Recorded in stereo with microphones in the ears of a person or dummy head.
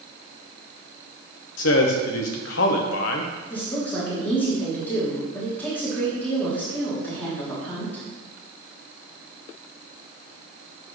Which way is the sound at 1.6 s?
70° left (ahead or behind).